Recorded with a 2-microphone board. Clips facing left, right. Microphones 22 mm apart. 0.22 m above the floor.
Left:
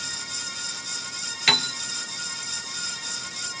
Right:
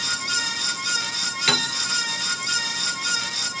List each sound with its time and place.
1.5 s a piano: 15° left (ahead or behind), 0.6 m